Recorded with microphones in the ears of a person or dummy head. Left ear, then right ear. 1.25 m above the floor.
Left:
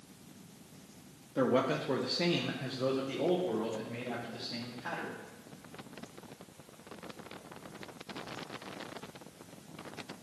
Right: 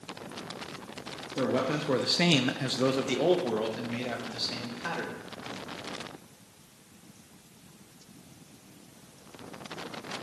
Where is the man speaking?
20° left (ahead or behind), 0.7 m; by 5.2 s 65° right (ahead or behind), 2.5 m.